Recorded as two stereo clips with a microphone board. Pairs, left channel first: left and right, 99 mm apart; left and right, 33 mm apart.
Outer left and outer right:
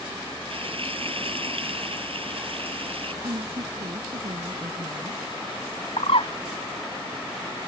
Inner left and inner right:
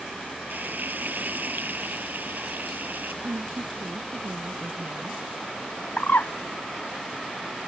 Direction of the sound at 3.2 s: 80° right.